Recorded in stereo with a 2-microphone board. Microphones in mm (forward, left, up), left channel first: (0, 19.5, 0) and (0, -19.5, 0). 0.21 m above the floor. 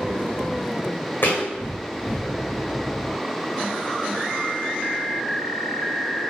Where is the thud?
55° left (ahead or behind), 1.6 m.